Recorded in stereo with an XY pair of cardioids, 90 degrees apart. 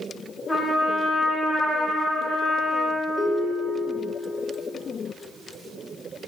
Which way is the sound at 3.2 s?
15° left.